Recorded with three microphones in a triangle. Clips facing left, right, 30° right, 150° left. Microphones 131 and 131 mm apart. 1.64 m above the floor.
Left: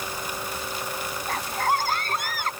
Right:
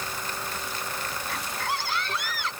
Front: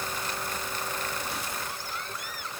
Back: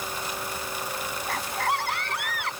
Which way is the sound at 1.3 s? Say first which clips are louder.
Left 8 dB, back 8 dB; 135° left.